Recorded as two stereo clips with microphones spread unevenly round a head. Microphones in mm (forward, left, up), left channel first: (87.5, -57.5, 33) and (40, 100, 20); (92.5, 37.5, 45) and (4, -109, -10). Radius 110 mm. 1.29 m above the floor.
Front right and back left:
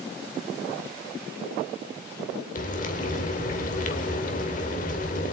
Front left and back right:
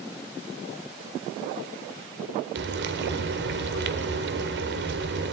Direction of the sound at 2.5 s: 105° right.